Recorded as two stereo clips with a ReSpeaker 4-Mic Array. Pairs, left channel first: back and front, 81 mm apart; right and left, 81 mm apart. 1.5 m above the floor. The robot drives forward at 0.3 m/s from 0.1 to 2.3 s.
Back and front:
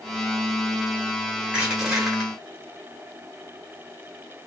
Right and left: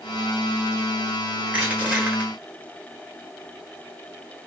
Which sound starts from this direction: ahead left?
Crushing, at 1.5 s.